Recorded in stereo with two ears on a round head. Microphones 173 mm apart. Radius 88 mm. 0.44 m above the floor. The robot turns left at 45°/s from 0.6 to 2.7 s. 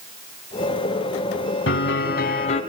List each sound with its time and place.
1.7 s a piano: 75° left, 3.5 m; by 2.6 s 30° left, 3.5 m